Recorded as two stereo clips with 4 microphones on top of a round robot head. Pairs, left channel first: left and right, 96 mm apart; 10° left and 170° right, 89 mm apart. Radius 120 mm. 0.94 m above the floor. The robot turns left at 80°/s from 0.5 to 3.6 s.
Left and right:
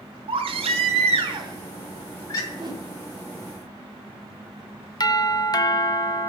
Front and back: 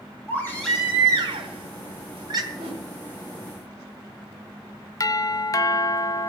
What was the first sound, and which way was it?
A baby crying, 65° right.